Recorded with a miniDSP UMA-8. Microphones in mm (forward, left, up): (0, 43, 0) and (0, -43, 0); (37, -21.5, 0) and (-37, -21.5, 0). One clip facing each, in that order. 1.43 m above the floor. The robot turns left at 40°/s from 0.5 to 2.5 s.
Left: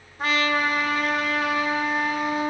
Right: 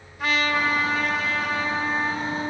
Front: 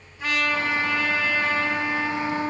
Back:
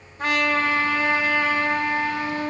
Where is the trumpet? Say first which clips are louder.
Even, back 3 dB; 140° left, 2 m; by 2.5 s 60° left, 2 m.